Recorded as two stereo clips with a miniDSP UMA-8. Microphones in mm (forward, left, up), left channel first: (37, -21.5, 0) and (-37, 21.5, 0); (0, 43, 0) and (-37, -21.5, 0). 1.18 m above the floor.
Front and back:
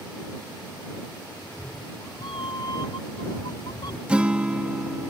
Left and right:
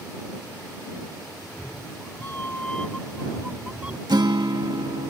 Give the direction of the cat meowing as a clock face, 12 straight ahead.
12 o'clock.